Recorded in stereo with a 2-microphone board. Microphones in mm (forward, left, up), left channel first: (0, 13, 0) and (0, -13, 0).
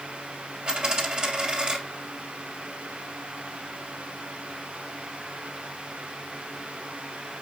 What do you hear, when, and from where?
0.7 s a dropped coin: 35° right (ahead or behind), 2.5 m